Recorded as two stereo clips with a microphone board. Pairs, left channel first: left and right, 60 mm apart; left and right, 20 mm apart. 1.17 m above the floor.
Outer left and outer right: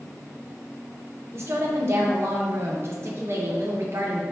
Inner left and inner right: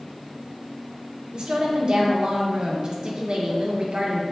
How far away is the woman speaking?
About 0.9 m.